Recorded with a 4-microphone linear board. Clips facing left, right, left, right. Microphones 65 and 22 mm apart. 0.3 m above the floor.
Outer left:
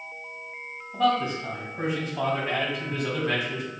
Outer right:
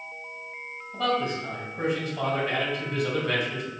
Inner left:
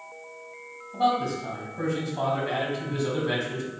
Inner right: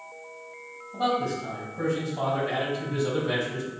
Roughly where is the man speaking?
Centre.